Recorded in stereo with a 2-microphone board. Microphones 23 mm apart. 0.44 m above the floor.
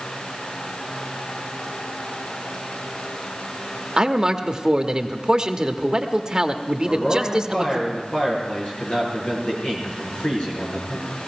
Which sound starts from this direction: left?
A man speaking, at 6.8 s.